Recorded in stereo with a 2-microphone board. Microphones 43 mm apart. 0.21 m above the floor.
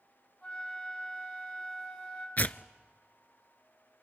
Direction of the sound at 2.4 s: 45° left (ahead or behind).